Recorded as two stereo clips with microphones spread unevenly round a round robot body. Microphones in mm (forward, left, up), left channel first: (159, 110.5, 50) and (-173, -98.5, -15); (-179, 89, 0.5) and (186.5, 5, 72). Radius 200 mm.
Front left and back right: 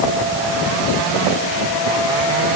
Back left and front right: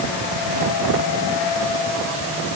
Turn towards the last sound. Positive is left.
No sound to turn to.